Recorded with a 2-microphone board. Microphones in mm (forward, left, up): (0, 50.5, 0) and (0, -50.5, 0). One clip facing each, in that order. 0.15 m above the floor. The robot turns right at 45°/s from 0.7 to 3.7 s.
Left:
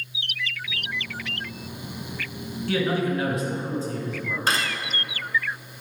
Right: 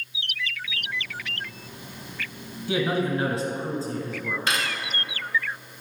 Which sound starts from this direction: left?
Cutlery clinking, at 4.5 s.